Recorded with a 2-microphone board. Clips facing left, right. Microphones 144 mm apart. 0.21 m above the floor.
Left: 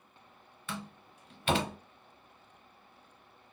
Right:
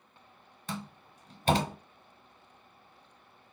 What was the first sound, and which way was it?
A door slam, 35° right (ahead or behind).